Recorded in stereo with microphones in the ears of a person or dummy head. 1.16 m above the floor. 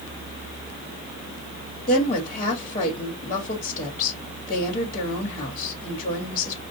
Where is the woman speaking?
35° left (ahead or behind), 1.8 m.